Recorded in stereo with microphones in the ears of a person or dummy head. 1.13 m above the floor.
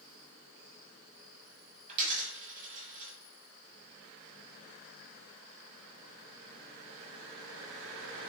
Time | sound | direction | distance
1.9 | a dropped coin | 45° right (ahead or behind) | 1.2 m